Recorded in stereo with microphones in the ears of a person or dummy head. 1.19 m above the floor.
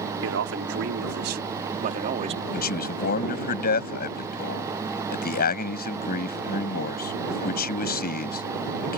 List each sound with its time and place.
0.2 s a man speaking: 75° right (ahead or behind); by 2.4 s 35° right (ahead or behind)
2.5 s a man speaking: 50° left (ahead or behind)